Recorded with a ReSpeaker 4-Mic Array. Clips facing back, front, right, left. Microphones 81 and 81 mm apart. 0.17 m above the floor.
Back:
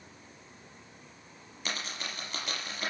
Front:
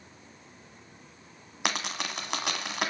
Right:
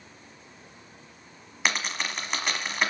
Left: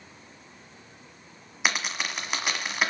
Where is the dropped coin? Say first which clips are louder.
Front 6 dB, even; 10° left, 1.4 m.